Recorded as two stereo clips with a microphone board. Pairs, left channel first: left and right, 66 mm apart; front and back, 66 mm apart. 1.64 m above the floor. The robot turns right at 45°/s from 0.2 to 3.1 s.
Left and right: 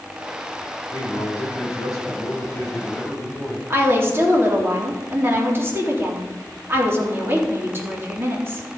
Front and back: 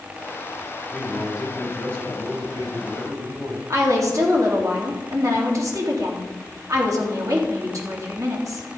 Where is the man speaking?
80° left, 6 m; by 3.6 s straight behind, 6 m.